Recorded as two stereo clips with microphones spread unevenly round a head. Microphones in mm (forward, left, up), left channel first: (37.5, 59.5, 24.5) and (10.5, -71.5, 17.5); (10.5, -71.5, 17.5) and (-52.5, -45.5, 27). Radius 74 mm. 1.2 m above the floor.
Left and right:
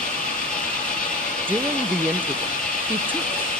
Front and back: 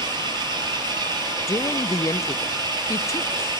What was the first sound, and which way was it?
An engine running, 160° left.